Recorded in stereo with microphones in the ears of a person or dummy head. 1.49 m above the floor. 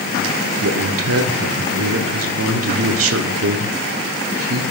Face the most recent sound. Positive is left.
turn(degrees=-70)  # may be behind; listen again after turning